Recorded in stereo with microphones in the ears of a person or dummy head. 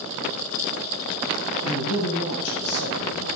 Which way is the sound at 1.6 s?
90° left.